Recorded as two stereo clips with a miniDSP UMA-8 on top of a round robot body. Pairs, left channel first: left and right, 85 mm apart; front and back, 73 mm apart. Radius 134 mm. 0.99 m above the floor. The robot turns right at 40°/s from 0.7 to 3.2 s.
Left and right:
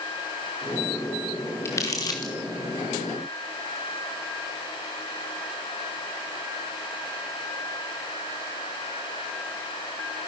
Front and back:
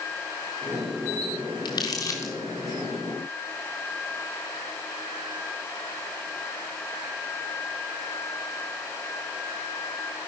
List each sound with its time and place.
1.6 s crumpling: 30° left, 0.6 m; by 2.3 s 60° left, 0.6 m